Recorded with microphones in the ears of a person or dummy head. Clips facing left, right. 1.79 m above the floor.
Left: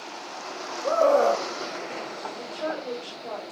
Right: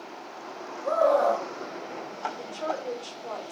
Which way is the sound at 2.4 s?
25° left (ahead or behind).